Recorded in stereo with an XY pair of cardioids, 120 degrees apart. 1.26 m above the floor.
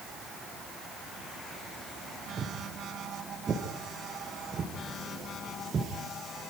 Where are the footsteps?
35° right, 6 m.